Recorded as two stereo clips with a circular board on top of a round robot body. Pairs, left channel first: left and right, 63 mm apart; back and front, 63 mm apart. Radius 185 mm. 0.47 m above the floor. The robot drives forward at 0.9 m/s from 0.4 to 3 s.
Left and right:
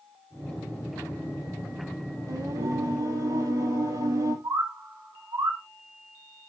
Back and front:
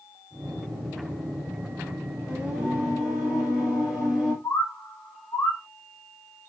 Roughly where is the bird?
Behind right.